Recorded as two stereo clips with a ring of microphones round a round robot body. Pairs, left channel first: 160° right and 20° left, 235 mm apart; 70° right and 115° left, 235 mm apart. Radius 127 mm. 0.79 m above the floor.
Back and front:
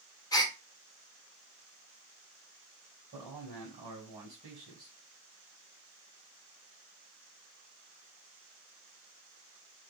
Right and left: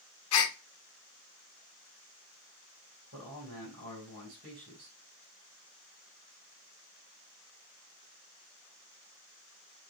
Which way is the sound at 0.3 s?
85° right.